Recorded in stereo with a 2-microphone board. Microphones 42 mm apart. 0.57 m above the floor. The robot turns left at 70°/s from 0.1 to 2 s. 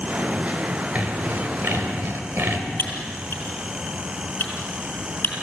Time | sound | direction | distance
0.9 | sawing | 40° right | 2.5 m
2.8 | typing on a keyboard | 60° left (ahead or behind) | 5 m